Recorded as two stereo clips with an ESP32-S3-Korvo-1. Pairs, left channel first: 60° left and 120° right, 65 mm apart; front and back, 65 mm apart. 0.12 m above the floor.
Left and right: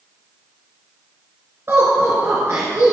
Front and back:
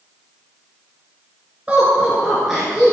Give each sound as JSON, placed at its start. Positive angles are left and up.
{"t": 1.7, "sound": "laughter", "azimuth_deg": -125, "distance_m": 1.8}